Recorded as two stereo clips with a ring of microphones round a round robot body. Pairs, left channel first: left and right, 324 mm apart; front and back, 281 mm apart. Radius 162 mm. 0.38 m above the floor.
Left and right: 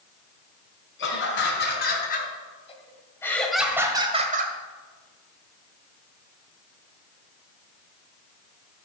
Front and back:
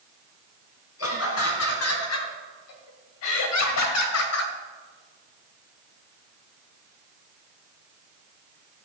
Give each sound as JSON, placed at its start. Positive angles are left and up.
{"t": 1.0, "sound": "laughter", "azimuth_deg": 35, "distance_m": 4.0}